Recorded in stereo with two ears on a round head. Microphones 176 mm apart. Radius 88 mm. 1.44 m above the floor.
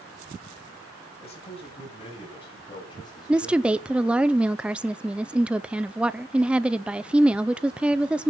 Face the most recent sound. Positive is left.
turn(degrees=-5)  # may be behind; listen again after turning